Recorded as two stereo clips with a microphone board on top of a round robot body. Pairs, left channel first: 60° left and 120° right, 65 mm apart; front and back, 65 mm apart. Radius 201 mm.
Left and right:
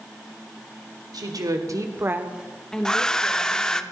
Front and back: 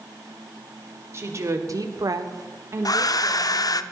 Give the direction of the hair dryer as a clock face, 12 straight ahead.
1 o'clock.